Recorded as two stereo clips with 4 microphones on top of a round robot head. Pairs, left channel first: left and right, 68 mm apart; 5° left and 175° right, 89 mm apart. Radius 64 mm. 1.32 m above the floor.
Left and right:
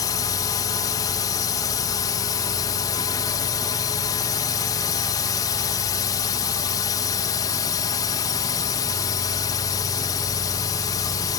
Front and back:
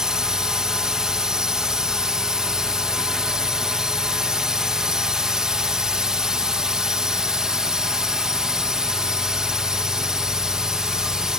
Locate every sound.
0.0 s a drone: 100° left